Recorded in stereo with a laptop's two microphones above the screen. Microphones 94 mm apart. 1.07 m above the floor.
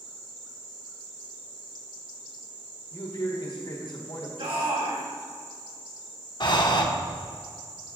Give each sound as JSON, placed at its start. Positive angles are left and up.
{"t": 2.9, "sound": "a man speaking", "side_deg": 50, "distance_m": 1.3}
{"t": 4.4, "sound": "a shout", "side_deg": -80, "distance_m": 1.7}
{"t": 6.4, "sound": "breathing", "side_deg": 55, "distance_m": 0.6}